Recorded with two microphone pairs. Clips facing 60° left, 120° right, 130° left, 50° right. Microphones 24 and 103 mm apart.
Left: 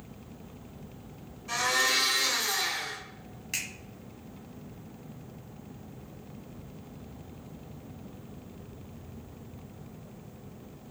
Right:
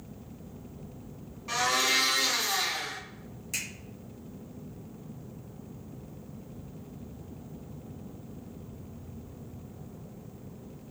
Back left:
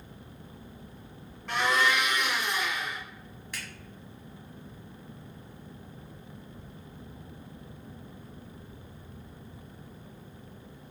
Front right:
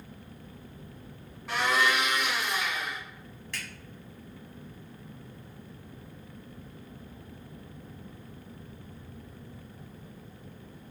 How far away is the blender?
About 1.5 m.